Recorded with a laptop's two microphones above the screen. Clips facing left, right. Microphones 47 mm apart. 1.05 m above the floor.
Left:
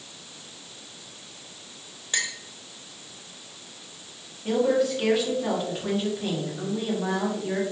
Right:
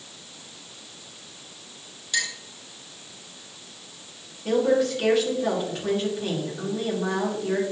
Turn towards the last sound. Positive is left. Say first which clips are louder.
# right 1 dB
turn(degrees=0)  # may be behind; listen again after turning